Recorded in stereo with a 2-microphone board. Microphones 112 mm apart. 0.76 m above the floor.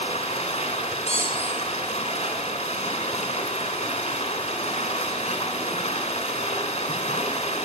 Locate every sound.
0.0 s running water: 85° left, 2 m
1.1 s a squeak: 60° left (ahead or behind), 4 m